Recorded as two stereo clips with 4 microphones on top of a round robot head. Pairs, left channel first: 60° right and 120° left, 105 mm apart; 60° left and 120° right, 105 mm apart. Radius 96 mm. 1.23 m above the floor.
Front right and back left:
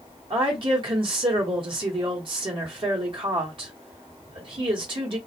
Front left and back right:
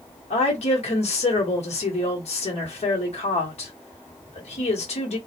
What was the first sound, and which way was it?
A woman speaking, 80° left.